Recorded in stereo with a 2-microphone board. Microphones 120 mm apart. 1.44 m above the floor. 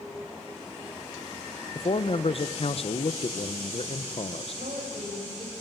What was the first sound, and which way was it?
A man speaking, 50° left (ahead or behind).